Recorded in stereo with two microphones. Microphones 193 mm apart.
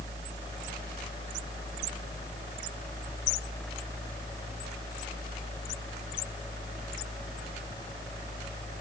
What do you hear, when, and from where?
Only background noise.